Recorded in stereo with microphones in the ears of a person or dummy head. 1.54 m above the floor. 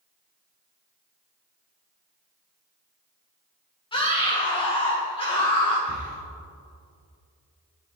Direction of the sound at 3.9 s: 20° left (ahead or behind).